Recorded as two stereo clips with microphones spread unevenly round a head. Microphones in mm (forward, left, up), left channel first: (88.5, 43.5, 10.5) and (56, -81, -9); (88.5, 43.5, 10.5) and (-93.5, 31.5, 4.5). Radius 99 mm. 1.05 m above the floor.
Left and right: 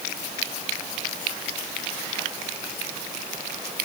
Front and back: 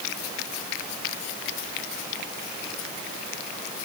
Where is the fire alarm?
I don't hear a fire alarm.